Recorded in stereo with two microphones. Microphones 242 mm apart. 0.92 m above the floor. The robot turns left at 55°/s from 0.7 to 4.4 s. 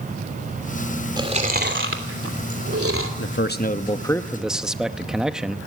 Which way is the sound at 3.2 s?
65° left.